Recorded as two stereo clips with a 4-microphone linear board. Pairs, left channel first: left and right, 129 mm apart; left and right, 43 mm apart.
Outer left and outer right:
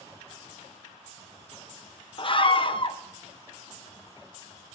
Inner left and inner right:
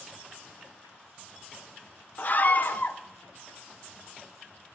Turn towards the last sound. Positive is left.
turn(degrees=45)  # may be behind; listen again after turning